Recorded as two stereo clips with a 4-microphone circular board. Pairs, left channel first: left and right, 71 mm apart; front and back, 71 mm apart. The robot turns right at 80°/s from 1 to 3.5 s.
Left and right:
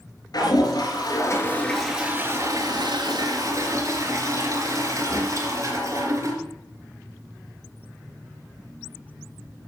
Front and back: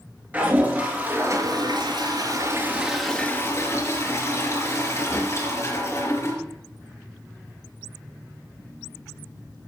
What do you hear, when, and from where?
0.3 s a toilet flushing: 115° left, 4 m; by 6.4 s 45° right, 4 m